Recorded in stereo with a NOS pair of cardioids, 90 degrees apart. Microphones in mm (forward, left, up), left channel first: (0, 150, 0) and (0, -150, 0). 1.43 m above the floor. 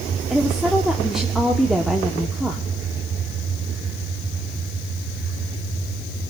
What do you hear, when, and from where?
0.3 s a woman speaking: straight ahead, 1.1 m